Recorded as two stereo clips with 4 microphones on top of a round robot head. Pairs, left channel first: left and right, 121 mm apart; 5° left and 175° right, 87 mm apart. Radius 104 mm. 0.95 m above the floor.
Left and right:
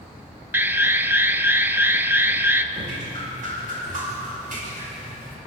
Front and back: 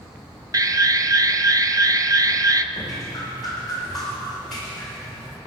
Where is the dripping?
85° right, 5.5 m.